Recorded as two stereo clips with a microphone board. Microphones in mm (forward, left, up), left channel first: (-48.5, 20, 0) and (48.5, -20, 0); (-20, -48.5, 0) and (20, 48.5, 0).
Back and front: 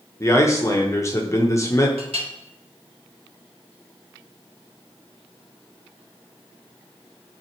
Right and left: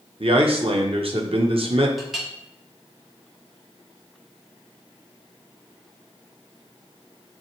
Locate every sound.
0.2 s a man speaking: 95° left, 1.1 m
2.0 s a clink: 25° right, 1.5 m